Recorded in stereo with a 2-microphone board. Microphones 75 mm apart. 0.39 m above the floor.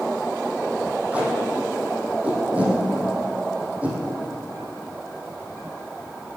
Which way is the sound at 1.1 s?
20° right (ahead or behind).